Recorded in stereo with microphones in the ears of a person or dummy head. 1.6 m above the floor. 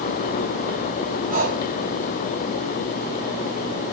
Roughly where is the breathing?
Right.